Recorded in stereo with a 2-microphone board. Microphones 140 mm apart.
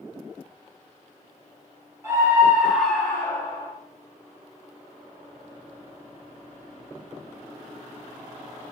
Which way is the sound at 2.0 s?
20° right (ahead or behind).